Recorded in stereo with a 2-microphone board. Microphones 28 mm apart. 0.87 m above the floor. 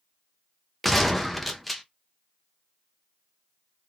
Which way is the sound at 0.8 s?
Centre (ahead or behind).